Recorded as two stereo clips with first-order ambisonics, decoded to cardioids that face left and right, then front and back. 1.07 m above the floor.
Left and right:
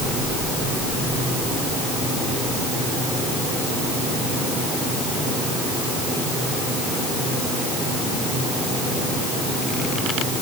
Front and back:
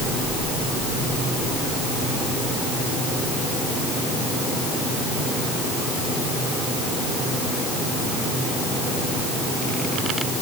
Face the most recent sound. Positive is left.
No sound to turn to.